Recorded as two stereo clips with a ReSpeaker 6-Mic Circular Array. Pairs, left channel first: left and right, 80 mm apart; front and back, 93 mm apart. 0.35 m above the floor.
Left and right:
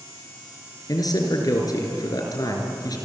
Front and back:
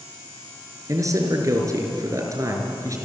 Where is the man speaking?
130° left, 5 m.